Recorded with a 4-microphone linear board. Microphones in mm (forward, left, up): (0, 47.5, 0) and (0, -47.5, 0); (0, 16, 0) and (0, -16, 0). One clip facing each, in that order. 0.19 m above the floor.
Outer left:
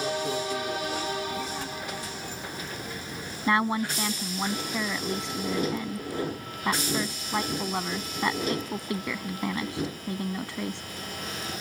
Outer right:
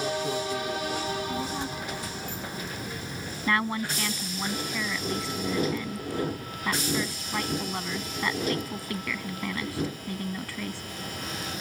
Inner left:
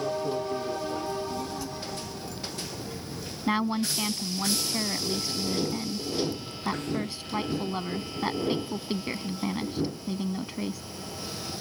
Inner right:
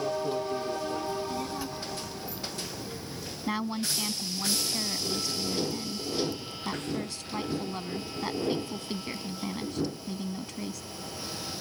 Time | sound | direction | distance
1.1 | a child speaking | 30° right (ahead or behind) | ?
3.5 | a woman speaking | 20° left (ahead or behind) | ?